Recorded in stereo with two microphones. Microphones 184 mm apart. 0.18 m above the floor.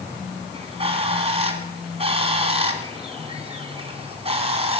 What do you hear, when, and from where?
0.5 s a bird: 35° right (ahead or behind), 1.7 m